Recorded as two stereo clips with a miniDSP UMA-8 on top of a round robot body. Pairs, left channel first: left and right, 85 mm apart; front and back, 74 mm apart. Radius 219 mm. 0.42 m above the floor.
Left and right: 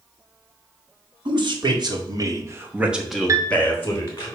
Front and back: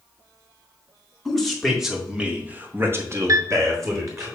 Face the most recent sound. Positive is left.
turn(degrees=-140)